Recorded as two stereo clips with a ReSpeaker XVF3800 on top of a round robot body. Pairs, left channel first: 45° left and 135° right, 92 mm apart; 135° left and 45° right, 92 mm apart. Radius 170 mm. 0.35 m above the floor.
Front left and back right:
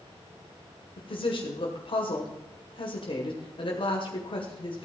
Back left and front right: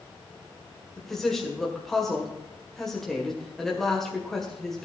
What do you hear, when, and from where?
1.0 s a woman speaking: 50° left, 2.0 m